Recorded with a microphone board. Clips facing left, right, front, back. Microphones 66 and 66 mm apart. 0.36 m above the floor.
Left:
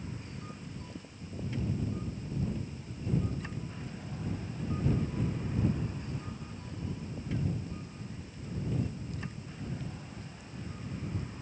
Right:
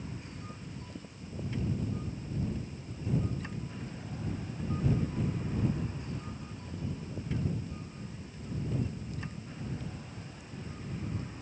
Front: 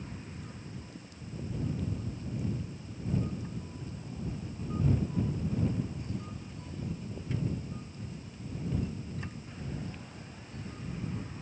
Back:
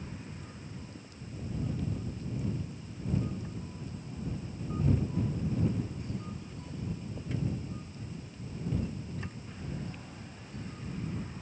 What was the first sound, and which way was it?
Only background noise.